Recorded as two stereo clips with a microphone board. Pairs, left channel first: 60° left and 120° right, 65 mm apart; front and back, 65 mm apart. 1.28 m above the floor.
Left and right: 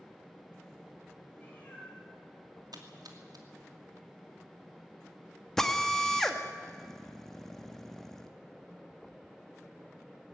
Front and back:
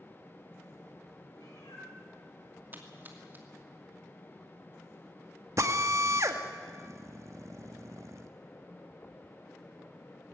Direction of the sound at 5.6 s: 145° left.